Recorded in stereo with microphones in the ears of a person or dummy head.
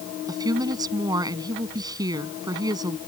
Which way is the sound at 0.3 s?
20° right (ahead or behind).